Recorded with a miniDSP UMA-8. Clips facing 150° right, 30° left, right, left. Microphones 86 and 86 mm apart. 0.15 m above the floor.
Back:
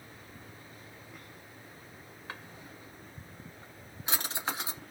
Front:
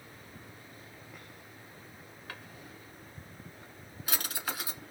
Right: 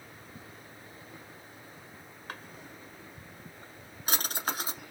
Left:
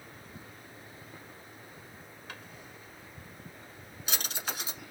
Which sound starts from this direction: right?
A drawer, at 2.3 s.